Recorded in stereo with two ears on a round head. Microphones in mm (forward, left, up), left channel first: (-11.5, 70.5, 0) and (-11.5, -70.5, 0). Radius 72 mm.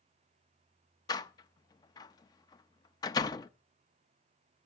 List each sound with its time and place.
1.1 s a door slam: 25° left (ahead or behind), 0.6 m